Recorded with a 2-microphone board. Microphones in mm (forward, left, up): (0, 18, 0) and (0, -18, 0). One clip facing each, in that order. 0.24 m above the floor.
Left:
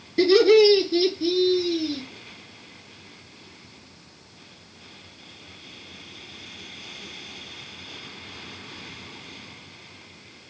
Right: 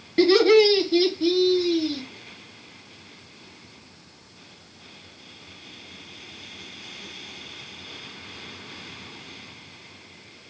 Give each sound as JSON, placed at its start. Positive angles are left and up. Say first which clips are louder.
{"t": 0.2, "sound": "laughter", "louder": "left 1 dB", "side_deg": -50, "distance_m": 2.5}